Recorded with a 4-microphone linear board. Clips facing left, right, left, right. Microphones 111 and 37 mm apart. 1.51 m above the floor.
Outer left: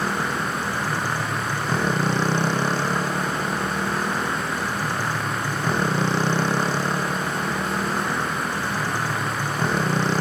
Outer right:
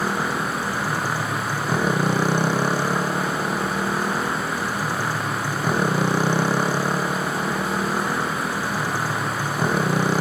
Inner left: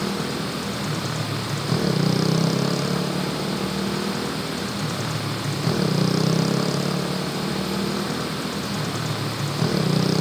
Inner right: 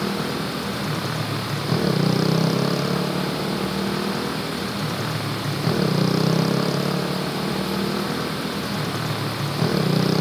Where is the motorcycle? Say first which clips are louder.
Outer right 1 dB, inner right 1 dB; 10° right (ahead or behind).